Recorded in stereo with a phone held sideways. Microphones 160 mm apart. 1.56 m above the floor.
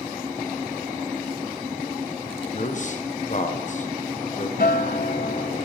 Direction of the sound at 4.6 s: 65° left (ahead or behind).